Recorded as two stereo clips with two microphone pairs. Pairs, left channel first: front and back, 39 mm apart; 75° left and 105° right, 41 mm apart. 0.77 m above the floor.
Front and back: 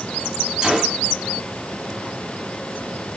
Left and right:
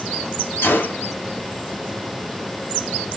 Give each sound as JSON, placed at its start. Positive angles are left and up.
{"t": 0.6, "sound": "a gunshot", "azimuth_deg": 105, "distance_m": 0.8}